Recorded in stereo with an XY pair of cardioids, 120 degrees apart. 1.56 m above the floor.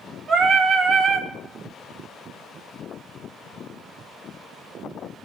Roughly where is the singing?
Ahead right.